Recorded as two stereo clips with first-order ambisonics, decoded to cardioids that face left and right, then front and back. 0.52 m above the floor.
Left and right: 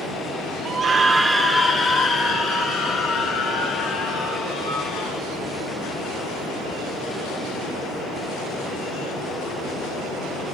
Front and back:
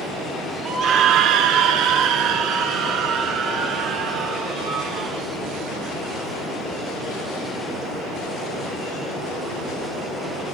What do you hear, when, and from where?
0.7 s a scream: 140° right, 1.1 m; by 5.3 s 135° left, 4 m